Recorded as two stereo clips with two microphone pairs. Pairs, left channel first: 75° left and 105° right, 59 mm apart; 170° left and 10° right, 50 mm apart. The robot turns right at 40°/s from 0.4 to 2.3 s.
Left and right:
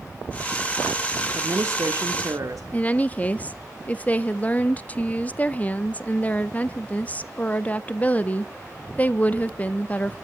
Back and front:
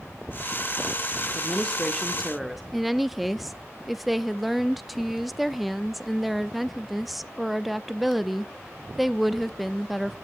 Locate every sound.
1.4 s a woman speaking: 140° right, 1.5 m; by 2.6 s 100° right, 1.5 m
2.7 s a woman speaking: 75° left, 0.6 m